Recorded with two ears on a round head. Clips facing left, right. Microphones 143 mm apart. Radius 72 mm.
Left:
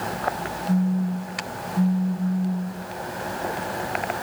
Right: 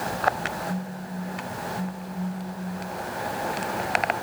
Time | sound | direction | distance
0.7 | a phone buzzing | 50° left (ahead or behind) | 3 m